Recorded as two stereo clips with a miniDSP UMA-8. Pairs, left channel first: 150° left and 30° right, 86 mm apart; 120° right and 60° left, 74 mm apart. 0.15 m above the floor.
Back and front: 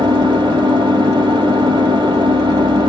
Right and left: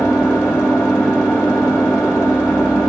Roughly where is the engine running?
Ahead.